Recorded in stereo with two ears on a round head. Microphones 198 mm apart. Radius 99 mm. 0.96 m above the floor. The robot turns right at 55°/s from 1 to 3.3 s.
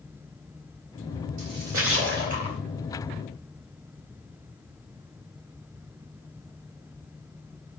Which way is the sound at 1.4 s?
85° right.